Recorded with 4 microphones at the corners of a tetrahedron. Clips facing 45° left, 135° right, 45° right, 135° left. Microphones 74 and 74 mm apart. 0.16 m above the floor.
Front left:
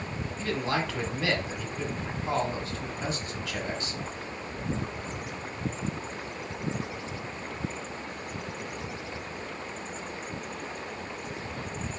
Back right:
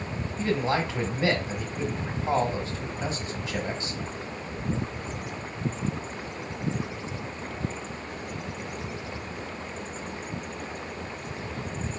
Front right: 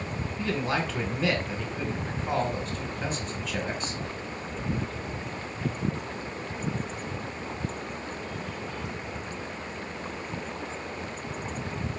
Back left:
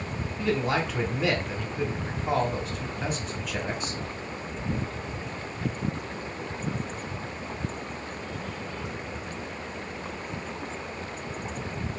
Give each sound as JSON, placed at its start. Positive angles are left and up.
{"t": 0.4, "sound": "a man speaking", "azimuth_deg": -140, "distance_m": 1.1}